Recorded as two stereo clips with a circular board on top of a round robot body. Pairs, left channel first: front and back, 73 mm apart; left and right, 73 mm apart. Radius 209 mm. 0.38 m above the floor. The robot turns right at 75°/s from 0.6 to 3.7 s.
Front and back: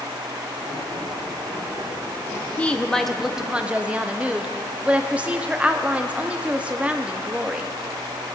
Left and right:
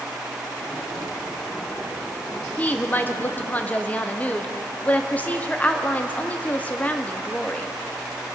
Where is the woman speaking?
45° left, 1.0 m; by 7.7 s 130° left, 1.0 m.